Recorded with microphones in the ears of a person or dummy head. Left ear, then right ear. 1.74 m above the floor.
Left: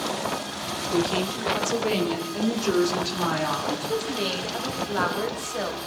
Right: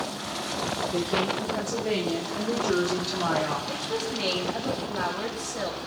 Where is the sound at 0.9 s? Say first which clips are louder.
Left 4 dB; 70° left (ahead or behind), 4 m; by 3.6 s 80° left, 5 m.